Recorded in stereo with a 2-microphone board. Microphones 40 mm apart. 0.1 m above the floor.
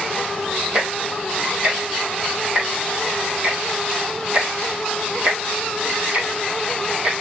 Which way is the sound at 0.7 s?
30° right (ahead or behind).